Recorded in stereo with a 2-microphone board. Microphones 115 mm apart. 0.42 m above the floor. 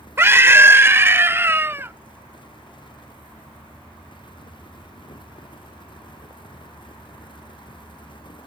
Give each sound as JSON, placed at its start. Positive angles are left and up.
{"t": 0.2, "sound": "a scream", "side_deg": -20}